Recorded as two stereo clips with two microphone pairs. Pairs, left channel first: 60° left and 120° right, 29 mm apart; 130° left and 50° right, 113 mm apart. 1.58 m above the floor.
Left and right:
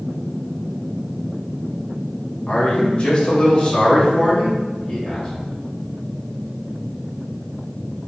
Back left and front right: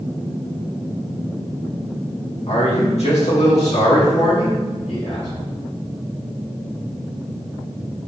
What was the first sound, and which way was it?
A man speaking, 110° left.